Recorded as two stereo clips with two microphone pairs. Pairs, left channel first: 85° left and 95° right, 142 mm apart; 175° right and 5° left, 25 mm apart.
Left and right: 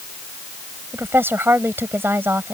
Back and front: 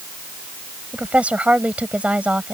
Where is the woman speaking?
20° right.